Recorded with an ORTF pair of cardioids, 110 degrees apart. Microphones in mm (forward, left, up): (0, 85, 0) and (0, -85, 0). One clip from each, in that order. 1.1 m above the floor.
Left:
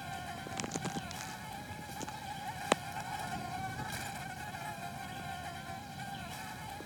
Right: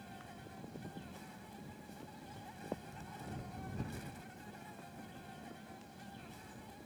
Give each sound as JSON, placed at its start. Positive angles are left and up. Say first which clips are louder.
{"t": 0.0, "sound": "an insect", "louder": "left 11 dB", "azimuth_deg": 70}